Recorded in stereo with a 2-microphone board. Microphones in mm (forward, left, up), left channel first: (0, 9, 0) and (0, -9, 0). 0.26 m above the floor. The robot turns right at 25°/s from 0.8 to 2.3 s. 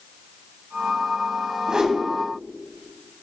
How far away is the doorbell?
No doorbell in this recording.